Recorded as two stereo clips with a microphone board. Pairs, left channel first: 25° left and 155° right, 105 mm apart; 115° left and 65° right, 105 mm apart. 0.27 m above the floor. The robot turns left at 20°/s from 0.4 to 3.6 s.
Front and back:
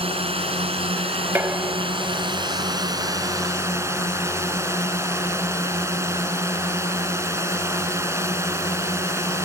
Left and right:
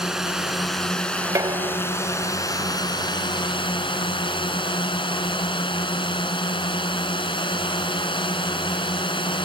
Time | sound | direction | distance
0.0 | a drone | 155° right | ?
1.4 | dishes clattering | 100° right | ?